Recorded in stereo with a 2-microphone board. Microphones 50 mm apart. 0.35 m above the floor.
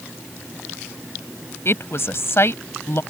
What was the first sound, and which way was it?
A woman speaking, 60° left (ahead or behind).